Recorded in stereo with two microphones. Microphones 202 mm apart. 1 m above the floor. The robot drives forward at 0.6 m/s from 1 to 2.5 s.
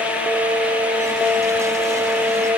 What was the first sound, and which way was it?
Only background noise.